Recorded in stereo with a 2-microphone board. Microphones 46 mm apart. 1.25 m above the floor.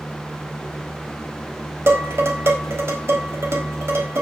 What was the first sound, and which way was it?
Dishes clattering, 70° right (ahead or behind).